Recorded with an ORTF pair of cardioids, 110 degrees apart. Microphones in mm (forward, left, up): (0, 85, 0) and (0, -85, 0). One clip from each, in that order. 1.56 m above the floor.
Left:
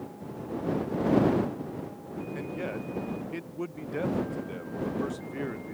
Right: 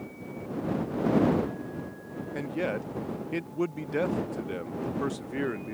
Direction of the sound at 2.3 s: 25° right.